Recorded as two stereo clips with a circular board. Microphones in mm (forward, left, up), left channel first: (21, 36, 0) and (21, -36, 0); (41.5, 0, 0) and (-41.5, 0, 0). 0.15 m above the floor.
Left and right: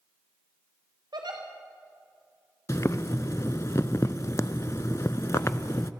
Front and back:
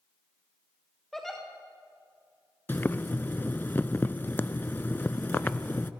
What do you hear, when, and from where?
1.1 s a giggle: 85° right, 4.5 m
2.7 s boiling: 60° left, 0.5 m